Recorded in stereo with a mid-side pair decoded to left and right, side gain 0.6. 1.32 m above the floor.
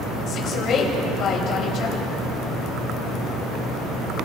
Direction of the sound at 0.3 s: 50° left.